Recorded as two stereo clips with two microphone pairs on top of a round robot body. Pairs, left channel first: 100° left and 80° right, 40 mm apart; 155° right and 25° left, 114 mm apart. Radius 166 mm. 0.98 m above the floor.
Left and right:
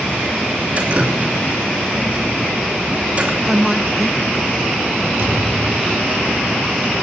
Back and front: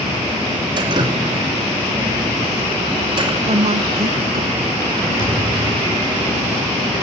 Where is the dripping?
25° right, 2.5 m.